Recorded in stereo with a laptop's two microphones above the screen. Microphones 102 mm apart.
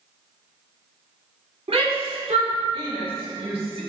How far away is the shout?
About 2.5 m.